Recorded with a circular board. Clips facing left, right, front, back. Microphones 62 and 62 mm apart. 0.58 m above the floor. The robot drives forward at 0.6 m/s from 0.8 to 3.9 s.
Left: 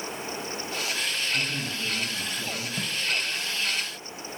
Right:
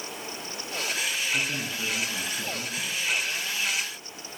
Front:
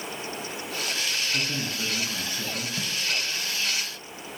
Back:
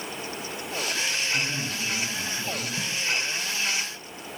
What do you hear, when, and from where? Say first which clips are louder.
1.3 s a man speaking: even, back 1 dB; 40° right, 7 m
2.8 s tape being pulled: left 2 dB, back 1 dB; 60° left, 2.5 m